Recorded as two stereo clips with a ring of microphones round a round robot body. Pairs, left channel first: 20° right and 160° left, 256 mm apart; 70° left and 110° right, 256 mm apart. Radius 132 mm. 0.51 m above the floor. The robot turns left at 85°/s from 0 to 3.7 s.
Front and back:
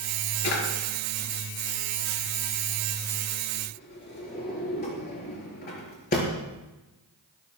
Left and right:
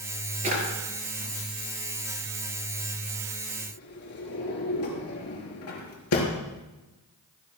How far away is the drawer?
About 4.5 m.